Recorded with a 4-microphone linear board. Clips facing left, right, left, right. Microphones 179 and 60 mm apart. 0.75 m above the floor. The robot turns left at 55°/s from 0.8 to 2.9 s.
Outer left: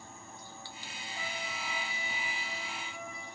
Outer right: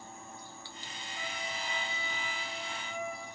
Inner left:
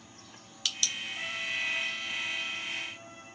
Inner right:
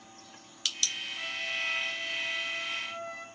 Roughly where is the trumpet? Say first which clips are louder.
Outer right 1 dB, even; ahead.